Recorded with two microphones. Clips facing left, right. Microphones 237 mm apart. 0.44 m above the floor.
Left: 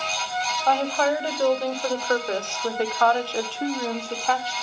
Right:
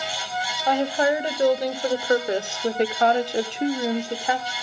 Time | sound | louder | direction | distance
0.7 | a woman speaking | right 2 dB | 15° right (ahead or behind) | 1.7 m